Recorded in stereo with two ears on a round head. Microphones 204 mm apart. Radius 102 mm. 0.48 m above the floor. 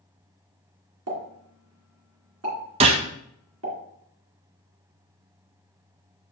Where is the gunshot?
25° right (ahead or behind), 0.5 m.